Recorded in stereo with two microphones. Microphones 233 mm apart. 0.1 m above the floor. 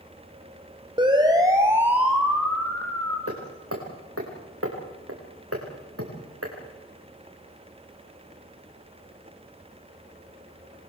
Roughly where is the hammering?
Right.